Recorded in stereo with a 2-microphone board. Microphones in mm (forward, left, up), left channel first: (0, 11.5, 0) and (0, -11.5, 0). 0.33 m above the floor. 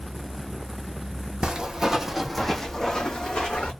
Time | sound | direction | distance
1.4 | footsteps | 35° right (ahead or behind) | 0.8 m